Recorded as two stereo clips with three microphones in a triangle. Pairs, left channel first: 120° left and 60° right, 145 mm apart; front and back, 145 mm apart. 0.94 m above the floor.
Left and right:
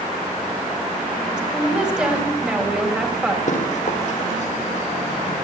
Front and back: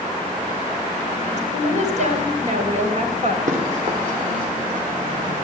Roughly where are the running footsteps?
Behind left.